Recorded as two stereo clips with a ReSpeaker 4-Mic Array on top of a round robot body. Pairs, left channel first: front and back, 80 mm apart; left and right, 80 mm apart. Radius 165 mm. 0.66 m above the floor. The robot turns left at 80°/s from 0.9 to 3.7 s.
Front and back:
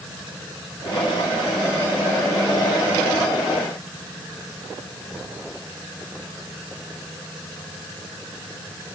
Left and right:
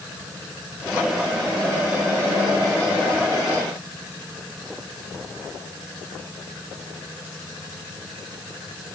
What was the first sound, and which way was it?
Only background noise.